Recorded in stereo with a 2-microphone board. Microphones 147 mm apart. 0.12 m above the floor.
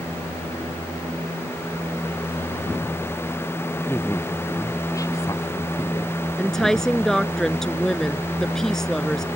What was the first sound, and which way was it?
A woman speaking, 15° left (ahead or behind).